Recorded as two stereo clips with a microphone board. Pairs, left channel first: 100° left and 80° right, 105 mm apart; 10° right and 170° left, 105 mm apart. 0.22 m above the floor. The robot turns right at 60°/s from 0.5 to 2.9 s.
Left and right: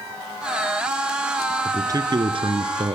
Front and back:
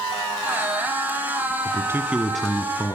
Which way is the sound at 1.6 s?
140° right.